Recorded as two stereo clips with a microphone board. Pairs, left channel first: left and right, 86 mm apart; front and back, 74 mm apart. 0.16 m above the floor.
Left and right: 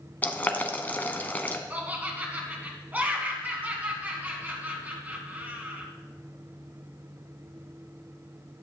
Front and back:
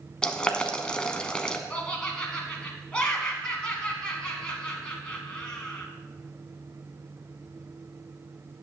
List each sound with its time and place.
0.2 s boiling: 60° left, 0.7 m
1.7 s laughter: 55° right, 1.2 m